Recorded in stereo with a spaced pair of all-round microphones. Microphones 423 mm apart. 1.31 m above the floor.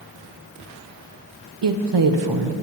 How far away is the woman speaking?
About 0.6 m.